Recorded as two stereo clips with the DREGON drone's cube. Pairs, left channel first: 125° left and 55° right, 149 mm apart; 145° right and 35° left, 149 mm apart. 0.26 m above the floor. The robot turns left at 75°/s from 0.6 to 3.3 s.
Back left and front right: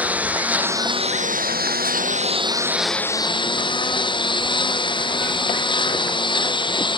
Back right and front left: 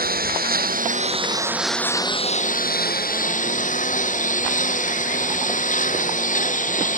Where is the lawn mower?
25° left; by 7.0 s 175° right.